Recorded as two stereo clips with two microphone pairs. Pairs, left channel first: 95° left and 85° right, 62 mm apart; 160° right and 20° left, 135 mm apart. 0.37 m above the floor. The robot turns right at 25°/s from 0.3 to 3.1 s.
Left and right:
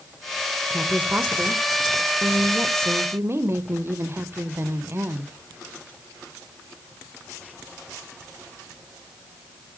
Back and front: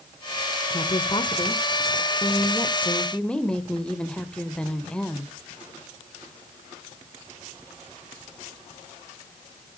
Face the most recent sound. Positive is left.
turn(degrees=-80)